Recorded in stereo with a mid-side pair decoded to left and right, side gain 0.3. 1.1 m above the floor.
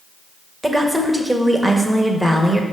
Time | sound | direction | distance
0.6 | a woman speaking | 20° right | 1.5 m